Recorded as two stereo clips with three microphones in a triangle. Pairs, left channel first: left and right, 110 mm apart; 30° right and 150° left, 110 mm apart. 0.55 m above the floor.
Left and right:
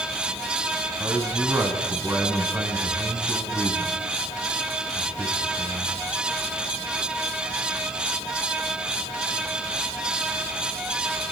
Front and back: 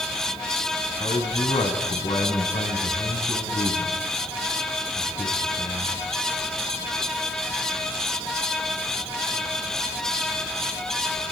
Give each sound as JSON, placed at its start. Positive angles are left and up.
{"t": 1.0, "sound": "a man speaking", "azimuth_deg": -25, "distance_m": 5.0}